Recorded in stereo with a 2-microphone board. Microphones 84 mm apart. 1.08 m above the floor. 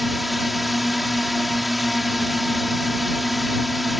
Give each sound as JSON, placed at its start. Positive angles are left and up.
{"t": 0.0, "sound": "a drone", "side_deg": 0}